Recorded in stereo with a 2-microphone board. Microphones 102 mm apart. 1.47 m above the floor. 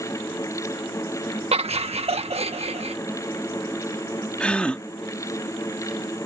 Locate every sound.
1.5 s laughter: 85° right
4.4 s a gasp: 10° left (ahead or behind)